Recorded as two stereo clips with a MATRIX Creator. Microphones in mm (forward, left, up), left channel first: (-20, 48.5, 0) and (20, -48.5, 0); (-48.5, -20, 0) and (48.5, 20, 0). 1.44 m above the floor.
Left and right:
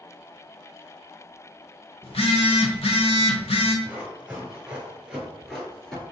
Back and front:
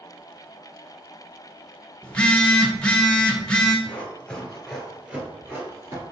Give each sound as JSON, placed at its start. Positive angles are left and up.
{"t": 2.0, "sound": "a phone buzzing", "azimuth_deg": 125, "distance_m": 0.8}
{"t": 3.9, "sound": "running footsteps", "azimuth_deg": -110, "distance_m": 1.5}